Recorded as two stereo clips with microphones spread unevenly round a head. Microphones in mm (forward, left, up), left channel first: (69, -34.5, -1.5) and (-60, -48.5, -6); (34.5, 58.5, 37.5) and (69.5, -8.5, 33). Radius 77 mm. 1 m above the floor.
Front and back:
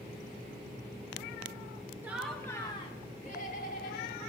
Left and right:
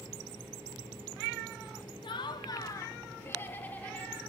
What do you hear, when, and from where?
2.0 s laughter: 110° left, 1.2 m; by 4.2 s 45° left, 3 m